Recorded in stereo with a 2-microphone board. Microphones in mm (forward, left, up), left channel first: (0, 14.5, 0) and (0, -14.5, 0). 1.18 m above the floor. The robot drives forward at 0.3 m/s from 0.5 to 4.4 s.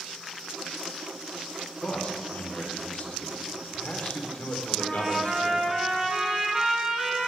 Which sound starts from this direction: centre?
A trumpet, at 4.8 s.